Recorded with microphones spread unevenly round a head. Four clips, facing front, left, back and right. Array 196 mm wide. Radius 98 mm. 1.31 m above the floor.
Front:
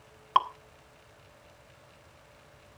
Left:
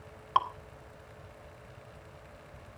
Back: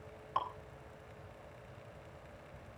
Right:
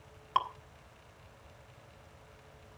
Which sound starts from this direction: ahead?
Dripping, at 0.3 s.